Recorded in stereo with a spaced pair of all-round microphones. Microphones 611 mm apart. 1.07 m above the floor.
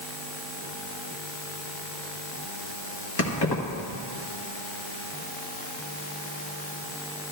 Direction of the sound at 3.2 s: 40° left (ahead or behind).